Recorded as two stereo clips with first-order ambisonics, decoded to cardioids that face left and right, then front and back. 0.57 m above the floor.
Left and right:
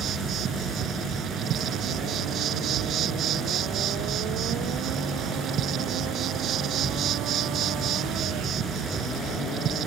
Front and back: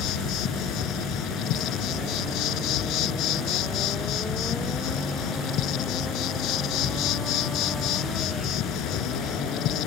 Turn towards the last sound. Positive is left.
turn(degrees=-35)